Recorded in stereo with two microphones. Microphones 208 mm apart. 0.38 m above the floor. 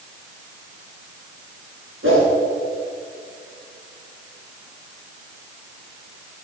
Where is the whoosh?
75° right (ahead or behind), 5.5 m.